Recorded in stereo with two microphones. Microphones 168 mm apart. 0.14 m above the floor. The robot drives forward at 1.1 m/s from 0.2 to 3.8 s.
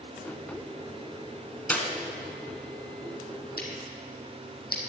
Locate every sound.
1.7 s a clap: 10° left (ahead or behind), 0.9 m
3.6 s scissors: 80° left, 1.8 m; by 4.8 s 75° left (ahead or behind), 1.8 m